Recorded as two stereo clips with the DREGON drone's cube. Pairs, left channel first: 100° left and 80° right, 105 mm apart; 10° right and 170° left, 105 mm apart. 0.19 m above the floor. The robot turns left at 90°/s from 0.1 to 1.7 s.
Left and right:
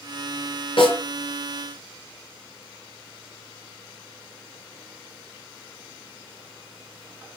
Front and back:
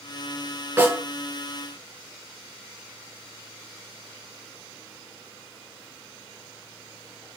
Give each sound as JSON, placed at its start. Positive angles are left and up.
{"t": 0.8, "sound": "a snare drum", "azimuth_deg": 105, "distance_m": 2.5}